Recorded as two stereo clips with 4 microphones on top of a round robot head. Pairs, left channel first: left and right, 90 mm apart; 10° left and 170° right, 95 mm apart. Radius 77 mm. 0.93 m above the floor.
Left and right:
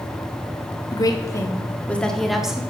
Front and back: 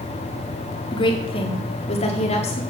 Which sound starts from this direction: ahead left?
A woman speaking, at 0.9 s.